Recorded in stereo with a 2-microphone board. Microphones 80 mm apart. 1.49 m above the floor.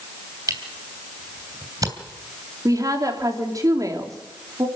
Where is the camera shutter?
50° right (ahead or behind), 2.5 m.